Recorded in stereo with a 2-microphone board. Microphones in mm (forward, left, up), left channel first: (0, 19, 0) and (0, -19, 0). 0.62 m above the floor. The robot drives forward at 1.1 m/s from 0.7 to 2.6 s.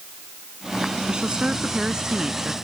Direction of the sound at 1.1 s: 25° right (ahead or behind).